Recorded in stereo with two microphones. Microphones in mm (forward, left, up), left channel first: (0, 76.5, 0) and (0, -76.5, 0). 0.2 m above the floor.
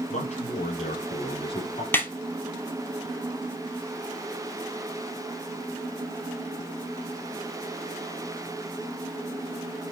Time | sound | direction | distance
0.1 | a man speaking | 50° left (ahead or behind) | 4.5 m
1.9 | a snare drum | 15° left (ahead or behind) | 2.5 m